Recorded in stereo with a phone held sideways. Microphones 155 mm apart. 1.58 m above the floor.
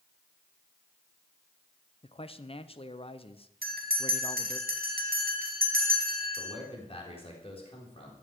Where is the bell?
75° right (ahead or behind), 2 m.